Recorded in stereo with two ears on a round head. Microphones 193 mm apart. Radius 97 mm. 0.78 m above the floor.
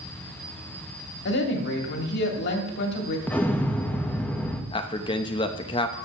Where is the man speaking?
20° left (ahead or behind), 0.6 m.